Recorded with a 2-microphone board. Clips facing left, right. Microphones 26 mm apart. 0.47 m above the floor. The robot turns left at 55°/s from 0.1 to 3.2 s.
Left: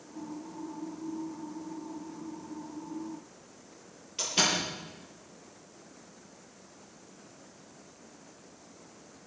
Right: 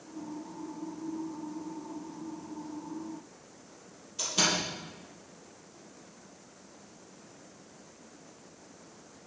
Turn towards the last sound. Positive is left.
turn(degrees=55)  # may be behind; listen again after turning